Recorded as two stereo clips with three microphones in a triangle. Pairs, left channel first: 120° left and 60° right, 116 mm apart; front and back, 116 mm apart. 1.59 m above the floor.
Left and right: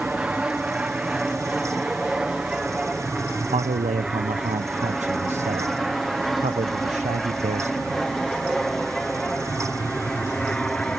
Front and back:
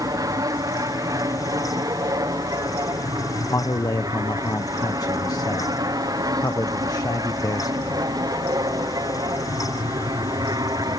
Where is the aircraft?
135° right; by 11.0 s 160° right.